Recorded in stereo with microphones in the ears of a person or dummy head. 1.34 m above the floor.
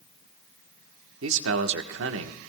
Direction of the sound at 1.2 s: 75° right (ahead or behind).